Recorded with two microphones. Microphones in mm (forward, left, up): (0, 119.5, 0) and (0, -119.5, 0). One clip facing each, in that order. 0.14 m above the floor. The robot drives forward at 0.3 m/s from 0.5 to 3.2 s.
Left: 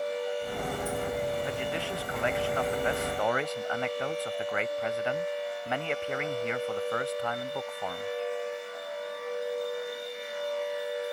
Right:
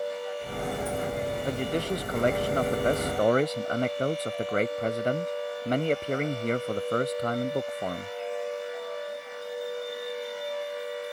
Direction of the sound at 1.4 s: 45° right (ahead or behind).